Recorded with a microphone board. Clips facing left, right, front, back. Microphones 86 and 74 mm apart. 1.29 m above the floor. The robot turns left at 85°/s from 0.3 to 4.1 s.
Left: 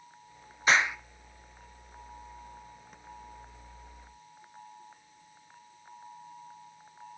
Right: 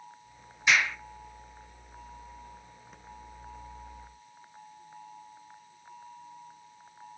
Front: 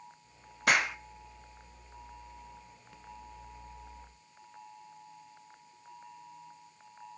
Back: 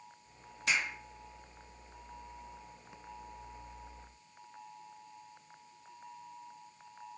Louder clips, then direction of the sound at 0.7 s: Left 1 dB, front 7 dB; 35° left.